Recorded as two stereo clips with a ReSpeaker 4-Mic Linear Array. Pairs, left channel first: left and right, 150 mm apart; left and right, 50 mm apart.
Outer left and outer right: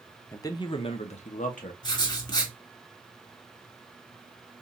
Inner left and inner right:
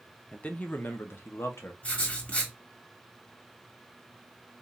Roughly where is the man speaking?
Centre.